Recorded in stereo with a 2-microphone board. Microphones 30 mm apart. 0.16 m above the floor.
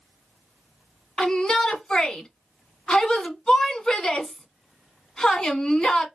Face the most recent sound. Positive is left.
turn(degrees=25)  # may be behind; listen again after turning